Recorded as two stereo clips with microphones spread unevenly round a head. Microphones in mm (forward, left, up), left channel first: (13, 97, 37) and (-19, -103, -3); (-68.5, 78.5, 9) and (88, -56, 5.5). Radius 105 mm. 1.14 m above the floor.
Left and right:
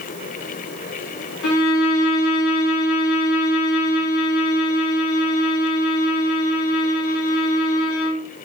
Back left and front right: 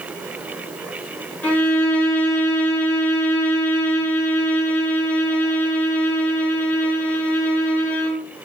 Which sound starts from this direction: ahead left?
A violin, at 1.4 s.